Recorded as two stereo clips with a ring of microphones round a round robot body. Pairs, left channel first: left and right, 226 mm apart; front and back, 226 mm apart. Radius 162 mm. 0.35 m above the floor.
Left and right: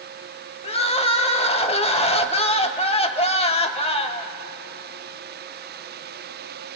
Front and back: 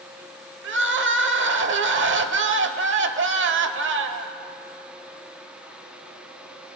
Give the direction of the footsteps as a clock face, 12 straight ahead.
No footsteps in this recording.